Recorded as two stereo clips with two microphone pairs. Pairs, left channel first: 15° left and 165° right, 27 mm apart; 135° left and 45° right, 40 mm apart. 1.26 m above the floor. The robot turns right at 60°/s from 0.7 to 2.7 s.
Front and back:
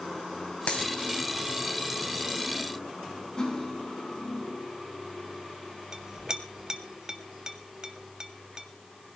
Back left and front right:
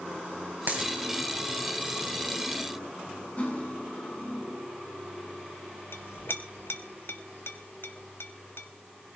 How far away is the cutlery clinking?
About 7.5 m.